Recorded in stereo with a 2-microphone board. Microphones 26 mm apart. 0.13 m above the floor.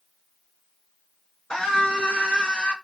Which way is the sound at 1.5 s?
45° left (ahead or behind).